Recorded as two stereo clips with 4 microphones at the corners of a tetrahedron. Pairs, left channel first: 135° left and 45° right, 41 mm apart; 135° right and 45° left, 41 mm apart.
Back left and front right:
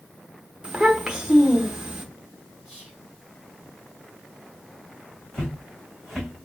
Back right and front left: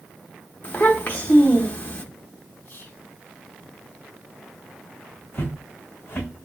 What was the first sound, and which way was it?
A child speaking, 105° right.